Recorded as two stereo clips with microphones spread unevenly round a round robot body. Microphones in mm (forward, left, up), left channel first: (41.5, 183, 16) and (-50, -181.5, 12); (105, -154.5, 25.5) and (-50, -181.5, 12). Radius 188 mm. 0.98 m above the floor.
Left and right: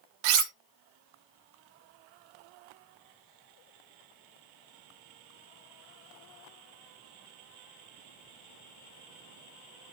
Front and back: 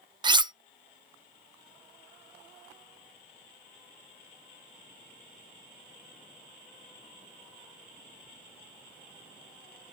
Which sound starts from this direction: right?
Cutlery clinking, at 0.2 s.